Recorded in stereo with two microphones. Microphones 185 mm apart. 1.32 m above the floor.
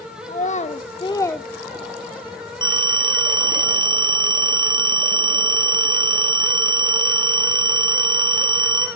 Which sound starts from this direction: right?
A phone ringing, at 2.6 s.